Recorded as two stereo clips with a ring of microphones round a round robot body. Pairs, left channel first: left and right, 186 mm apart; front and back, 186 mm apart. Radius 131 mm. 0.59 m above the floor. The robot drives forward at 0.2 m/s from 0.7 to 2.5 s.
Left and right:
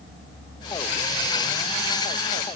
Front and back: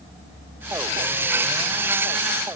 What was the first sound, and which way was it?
Only background noise.